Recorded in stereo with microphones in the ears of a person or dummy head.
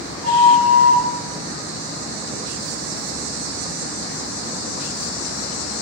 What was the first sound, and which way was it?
A flute, 40° right (ahead or behind).